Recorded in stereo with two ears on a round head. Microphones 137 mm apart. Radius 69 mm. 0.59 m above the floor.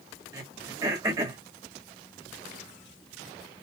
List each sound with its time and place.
0.3 s throat clearing: 20° right (ahead or behind), 1.3 m